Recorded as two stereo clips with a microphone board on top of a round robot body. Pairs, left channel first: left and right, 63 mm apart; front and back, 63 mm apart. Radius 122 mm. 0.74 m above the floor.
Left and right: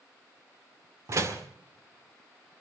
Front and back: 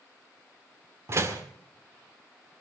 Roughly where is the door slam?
Behind right.